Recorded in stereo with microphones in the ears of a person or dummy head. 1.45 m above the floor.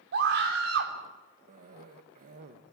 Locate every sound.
0.1 s a scream: 70° right (ahead or behind), 3.5 m
1.5 s a cough: 50° right (ahead or behind), 1.2 m